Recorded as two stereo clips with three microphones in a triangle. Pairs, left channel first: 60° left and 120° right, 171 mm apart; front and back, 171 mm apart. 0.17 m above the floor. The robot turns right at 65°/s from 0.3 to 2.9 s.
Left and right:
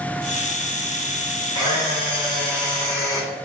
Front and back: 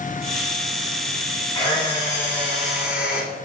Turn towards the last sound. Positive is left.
turn(degrees=105)